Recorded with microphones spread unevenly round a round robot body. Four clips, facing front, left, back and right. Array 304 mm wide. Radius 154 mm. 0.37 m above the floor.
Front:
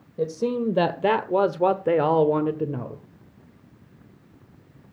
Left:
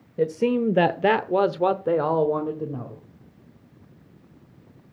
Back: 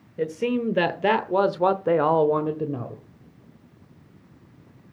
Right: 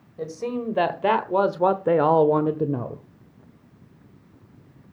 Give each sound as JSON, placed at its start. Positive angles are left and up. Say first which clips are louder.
{"t": 0.2, "sound": "a man speaking", "louder": "left 7 dB, even", "azimuth_deg": 85, "distance_m": 1.2}